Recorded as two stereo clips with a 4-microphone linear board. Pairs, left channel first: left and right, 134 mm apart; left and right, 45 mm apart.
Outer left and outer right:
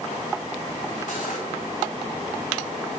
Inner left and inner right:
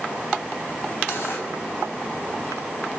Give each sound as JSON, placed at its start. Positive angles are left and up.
{"t": 1.1, "sound": "cutlery clinking", "side_deg": 75, "distance_m": 4.5}